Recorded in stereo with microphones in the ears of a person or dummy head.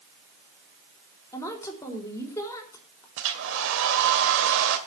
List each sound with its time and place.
1.3 s a woman speaking: 15° left (ahead or behind), 3.5 m
3.2 s a hair dryer: 70° right (ahead or behind), 2.5 m